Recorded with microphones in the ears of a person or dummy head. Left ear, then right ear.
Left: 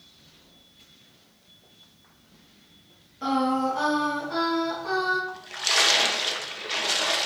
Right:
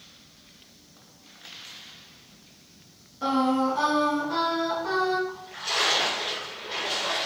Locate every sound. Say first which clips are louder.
3.2 s singing: even; 5° right (ahead or behind), 0.9 m
5.3 s a splash: left 4 dB; 55° left (ahead or behind), 0.8 m